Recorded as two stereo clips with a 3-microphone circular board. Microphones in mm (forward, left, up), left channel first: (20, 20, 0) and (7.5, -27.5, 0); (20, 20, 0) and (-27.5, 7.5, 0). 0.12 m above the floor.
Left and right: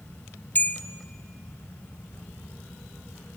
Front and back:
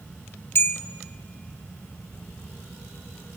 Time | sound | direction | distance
0.6 | a bell | 40° left | 0.8 m